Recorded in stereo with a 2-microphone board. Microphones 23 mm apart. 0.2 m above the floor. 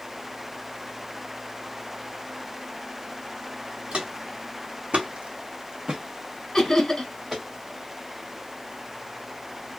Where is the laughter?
20° left (ahead or behind), 1.2 m.